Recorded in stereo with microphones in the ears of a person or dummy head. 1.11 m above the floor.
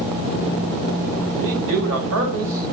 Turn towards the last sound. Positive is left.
turn(degrees=-75)  # may be behind; listen again after turning